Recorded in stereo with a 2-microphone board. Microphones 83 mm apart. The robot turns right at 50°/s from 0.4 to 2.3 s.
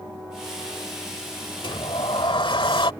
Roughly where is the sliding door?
Left.